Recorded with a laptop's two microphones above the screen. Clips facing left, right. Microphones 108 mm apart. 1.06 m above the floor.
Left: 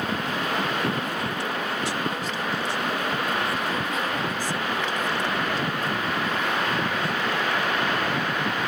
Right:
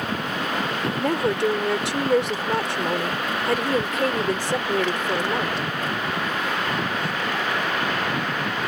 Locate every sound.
1.0 s a woman speaking: 75° right (ahead or behind)